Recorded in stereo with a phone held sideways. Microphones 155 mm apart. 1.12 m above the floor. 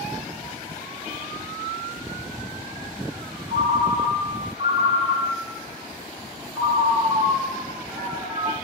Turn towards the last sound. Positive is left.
turn(degrees=-35)  # may be behind; listen again after turning